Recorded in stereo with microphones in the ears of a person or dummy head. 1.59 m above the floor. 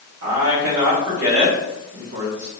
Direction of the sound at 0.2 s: 70° right (ahead or behind).